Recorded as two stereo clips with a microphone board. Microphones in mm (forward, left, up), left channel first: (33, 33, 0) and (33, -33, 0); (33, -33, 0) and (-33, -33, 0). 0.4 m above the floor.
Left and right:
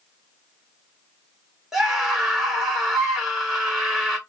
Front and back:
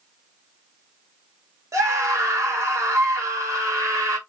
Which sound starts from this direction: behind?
A scream, at 1.7 s.